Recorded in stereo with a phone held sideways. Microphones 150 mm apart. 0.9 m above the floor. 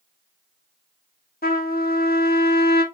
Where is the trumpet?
75° left (ahead or behind), 1.2 m.